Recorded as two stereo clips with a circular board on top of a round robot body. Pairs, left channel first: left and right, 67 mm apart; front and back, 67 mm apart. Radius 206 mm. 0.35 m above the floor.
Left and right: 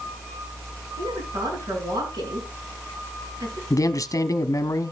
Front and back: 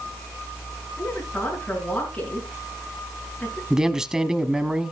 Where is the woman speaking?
75° right, 6 m.